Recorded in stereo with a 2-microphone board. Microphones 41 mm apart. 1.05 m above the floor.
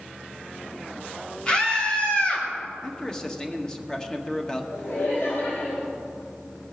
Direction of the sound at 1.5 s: 20° left (ahead or behind).